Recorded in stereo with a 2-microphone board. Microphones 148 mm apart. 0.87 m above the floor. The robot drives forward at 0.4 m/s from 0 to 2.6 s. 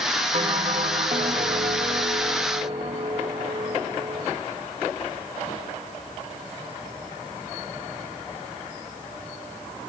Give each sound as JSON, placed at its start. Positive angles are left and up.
{"t": 0.3, "sound": "a bell", "side_deg": -50, "distance_m": 1.2}